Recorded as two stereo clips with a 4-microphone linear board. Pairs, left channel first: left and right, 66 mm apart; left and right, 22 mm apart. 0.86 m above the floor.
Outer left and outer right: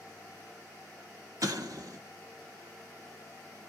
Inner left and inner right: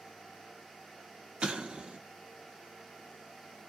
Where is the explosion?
60° right (ahead or behind), 0.7 m.